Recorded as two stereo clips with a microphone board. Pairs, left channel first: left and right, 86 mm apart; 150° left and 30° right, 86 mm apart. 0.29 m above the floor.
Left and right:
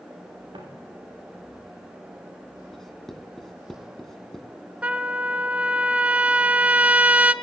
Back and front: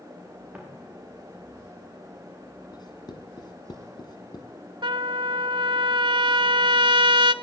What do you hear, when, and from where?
0.5 s footsteps: 110° right, 8.5 m
2.7 s writing: 175° left, 2 m
4.8 s a trumpet: 15° right, 0.9 m